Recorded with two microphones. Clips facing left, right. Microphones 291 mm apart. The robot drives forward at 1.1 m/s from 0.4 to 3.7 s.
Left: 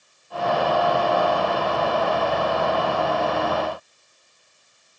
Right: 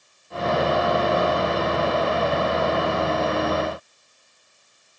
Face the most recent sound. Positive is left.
No sound to turn to.